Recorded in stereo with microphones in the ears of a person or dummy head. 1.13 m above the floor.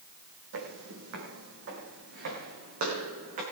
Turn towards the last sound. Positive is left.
turn(degrees=-45)  # may be behind; listen again after turning